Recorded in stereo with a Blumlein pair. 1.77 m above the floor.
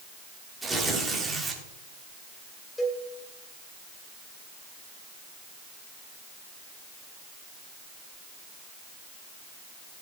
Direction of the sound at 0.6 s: 10° right.